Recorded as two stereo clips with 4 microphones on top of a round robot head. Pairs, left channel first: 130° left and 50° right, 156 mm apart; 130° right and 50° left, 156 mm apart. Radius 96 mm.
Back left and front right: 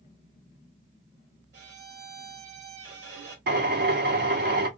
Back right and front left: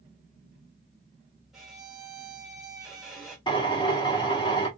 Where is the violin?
35° right, 1.2 m.